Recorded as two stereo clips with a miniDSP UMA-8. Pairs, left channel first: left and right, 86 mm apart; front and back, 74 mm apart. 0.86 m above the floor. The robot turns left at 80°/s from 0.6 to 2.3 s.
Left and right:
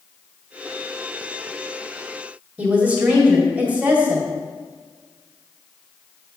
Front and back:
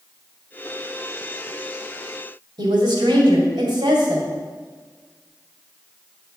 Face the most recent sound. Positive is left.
turn(degrees=-165)